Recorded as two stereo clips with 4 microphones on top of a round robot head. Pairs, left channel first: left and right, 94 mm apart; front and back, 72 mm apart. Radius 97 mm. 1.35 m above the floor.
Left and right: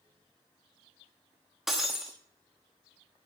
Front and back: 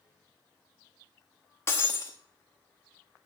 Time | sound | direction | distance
1.7 | breaking glass | 5° right | 0.8 m